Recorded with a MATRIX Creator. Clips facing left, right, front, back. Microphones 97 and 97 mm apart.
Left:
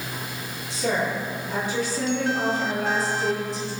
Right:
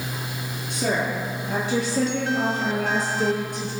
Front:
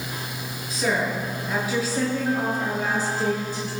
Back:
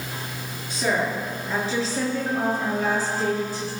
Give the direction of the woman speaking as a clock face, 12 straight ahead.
3 o'clock.